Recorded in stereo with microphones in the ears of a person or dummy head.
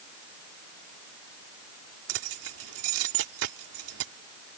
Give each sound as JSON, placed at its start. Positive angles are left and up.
{"t": 2.1, "sound": "keys jangling", "side_deg": -80}